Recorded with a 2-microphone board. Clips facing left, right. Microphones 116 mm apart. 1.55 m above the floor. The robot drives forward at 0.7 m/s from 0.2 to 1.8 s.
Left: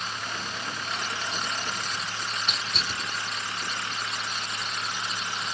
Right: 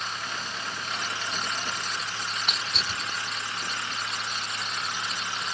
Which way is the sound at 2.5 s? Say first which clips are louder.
Even; 70° right (ahead or behind).